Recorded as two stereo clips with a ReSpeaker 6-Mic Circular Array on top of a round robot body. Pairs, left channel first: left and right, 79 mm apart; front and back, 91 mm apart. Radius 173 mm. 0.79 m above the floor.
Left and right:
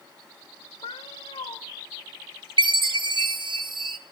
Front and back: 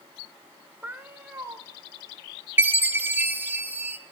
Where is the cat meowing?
110° left, 1.0 m.